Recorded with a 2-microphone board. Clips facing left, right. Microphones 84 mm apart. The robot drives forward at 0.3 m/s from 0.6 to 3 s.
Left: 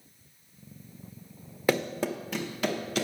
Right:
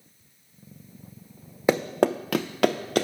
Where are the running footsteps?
15° right (ahead or behind), 0.6 m; by 3.0 s 55° right (ahead or behind), 1.4 m.